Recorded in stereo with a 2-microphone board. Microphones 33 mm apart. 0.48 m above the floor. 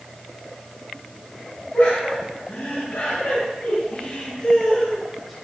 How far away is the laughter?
About 3.5 m.